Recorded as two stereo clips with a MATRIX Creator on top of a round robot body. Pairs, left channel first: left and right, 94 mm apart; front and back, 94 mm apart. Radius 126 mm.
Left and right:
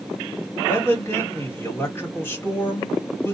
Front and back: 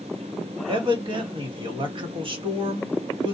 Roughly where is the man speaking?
Behind left.